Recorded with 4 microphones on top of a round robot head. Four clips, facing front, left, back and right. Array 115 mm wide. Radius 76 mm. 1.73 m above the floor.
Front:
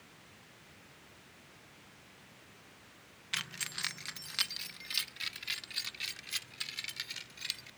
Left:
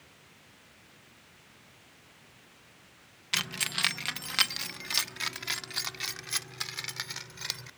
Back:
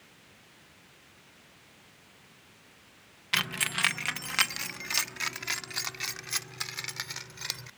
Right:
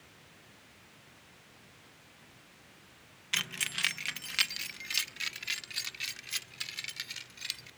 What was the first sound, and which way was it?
Keys jangling, 165° left.